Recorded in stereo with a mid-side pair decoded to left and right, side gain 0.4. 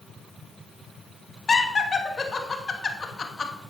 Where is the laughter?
35° left, 2.5 m.